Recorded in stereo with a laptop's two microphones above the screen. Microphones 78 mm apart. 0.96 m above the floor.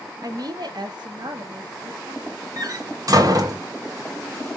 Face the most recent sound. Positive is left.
turn(degrees=-50)  # may be behind; listen again after turning